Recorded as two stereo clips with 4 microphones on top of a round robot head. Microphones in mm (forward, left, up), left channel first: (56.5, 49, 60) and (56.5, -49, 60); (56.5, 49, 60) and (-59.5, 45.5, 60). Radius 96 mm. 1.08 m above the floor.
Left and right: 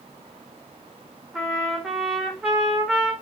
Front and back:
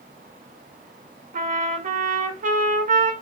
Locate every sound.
1.3 s a trumpet: 175° right, 1.7 m